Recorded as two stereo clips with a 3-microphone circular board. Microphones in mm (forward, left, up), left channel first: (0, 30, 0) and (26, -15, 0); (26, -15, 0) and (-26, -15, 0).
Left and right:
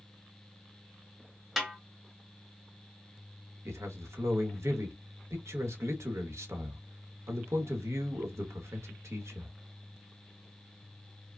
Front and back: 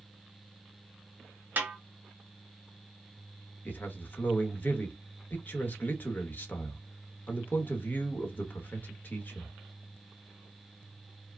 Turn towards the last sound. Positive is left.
turn(degrees=-50)